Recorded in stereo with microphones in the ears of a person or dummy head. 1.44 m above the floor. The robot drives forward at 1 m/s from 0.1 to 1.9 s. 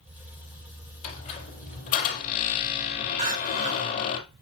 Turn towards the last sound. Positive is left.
turn(degrees=-40)  # may be behind; listen again after turning